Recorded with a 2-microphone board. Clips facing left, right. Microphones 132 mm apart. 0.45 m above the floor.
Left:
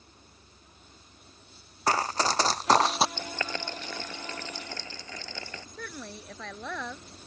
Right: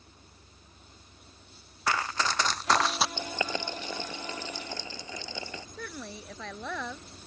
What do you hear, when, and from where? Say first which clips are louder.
1.9 s running footsteps: left 3 dB; 35° left (ahead or behind)
3.2 s boiling: right 2 dB; 15° right (ahead or behind)
5.8 s a woman speaking: left 1 dB; 5° right (ahead or behind)